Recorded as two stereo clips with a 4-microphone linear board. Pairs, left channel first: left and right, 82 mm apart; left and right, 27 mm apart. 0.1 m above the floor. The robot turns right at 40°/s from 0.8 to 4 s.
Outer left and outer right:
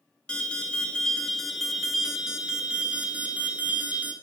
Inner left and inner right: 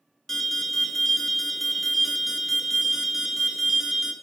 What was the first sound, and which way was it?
An alarm, 15° left (ahead or behind).